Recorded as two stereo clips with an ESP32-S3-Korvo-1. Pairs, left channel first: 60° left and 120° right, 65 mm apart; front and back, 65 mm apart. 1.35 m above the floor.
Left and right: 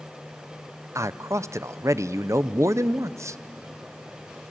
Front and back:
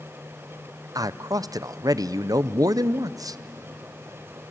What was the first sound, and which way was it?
A man speaking, 160° right.